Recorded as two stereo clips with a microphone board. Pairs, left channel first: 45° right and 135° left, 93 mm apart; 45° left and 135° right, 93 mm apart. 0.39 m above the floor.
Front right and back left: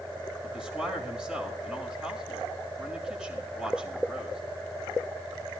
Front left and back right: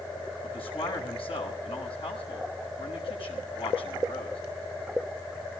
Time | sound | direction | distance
0.4 | a man speaking | 55° left | 5.5 m